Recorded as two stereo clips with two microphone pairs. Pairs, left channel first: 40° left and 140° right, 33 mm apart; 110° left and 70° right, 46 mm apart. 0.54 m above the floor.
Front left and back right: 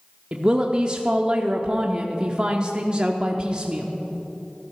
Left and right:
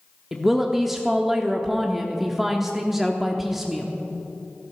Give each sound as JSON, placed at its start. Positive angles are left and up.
{"t": 0.3, "sound": "a woman speaking", "azimuth_deg": -145, "distance_m": 0.9}